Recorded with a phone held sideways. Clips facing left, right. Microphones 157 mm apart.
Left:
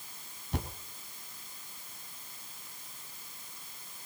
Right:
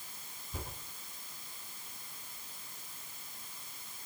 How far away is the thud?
About 3.5 m.